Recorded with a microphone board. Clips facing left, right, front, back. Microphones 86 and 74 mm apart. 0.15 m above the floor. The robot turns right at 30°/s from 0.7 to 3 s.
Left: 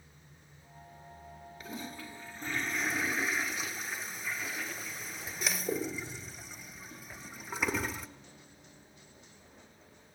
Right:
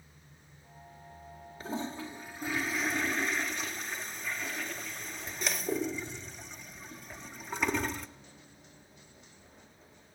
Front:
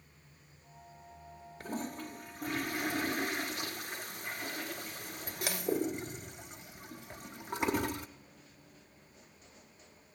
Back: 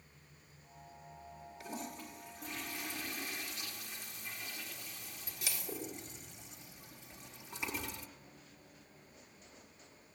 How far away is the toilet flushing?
About 1.0 m.